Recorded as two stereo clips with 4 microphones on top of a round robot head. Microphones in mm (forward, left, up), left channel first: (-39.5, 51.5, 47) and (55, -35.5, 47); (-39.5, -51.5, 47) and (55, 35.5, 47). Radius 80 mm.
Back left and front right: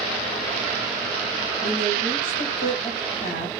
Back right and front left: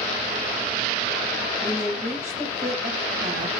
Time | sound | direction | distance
1.6 | a woman speaking | 110° left | 5.5 m